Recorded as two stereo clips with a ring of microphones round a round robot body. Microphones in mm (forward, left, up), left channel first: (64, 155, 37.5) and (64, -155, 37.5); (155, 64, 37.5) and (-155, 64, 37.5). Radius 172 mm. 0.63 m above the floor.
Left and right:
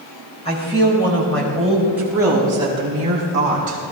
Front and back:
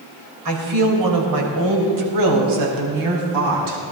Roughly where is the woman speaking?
Behind.